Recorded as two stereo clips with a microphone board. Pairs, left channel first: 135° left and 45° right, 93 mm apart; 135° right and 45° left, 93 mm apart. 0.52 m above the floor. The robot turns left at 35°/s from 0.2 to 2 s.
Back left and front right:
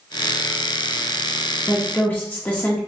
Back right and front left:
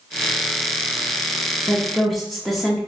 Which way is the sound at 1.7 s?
145° left.